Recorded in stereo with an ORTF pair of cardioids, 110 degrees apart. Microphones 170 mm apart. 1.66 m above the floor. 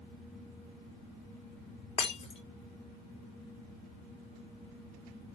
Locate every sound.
2.0 s breaking glass: 35° left, 2.5 m